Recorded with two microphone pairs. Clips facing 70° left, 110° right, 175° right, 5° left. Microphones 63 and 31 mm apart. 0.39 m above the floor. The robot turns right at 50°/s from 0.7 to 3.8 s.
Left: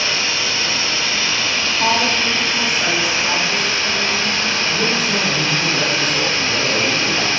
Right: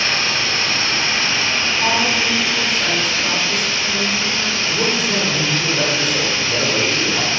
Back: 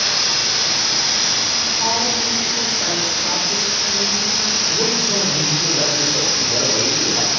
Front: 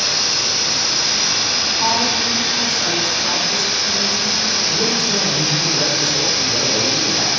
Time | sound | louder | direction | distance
0.0 | running water | right 1 dB, even | 110° right | 1.2 m
1.8 | a woman speaking | left 2 dB, front 3 dB | 100° left | 0.8 m
4.7 | a man speaking | right 1 dB, front 1 dB | 155° right | 0.9 m